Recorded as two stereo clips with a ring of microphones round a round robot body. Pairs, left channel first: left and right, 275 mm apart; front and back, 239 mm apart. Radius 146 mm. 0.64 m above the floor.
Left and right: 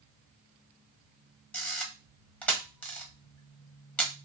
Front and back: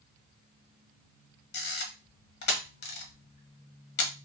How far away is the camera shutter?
About 1.2 m.